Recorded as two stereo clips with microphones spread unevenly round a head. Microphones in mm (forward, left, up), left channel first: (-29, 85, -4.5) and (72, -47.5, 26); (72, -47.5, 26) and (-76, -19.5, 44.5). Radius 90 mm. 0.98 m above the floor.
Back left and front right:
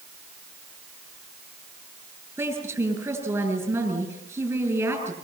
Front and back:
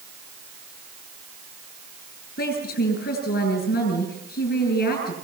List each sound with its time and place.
2.4 s a woman speaking: 20° left, 9 m